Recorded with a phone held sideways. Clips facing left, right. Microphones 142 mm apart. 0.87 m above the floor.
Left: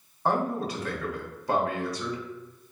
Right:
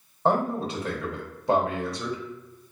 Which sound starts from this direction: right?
A man speaking, at 0.2 s.